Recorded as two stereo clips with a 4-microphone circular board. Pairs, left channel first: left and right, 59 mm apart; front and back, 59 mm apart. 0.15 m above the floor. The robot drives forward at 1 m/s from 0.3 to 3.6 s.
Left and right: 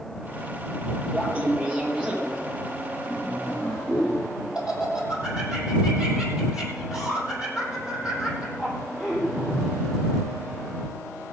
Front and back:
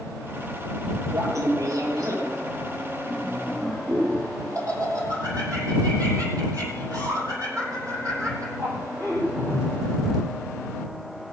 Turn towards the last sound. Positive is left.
turn(degrees=-165)